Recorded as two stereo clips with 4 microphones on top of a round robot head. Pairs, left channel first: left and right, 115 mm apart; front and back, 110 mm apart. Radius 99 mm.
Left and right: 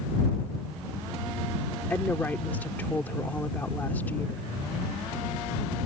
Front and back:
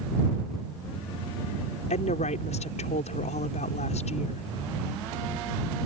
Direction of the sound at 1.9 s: 10° left.